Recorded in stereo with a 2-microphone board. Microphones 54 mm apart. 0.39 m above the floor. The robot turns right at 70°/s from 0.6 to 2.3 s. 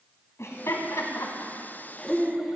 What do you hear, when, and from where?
0.4 s laughter: 55° left (ahead or behind), 2.5 m; by 2.6 s centre (ahead or behind), 2.5 m